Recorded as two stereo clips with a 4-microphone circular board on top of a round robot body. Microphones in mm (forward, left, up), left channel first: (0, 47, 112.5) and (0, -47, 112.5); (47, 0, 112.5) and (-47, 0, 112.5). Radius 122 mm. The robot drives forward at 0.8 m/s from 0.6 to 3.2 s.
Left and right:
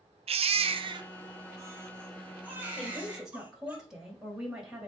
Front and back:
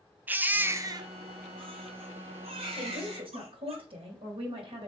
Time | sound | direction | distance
0.3 | a baby crying | 105° right | 0.6 m
2.8 | a woman speaking | 175° right | 3 m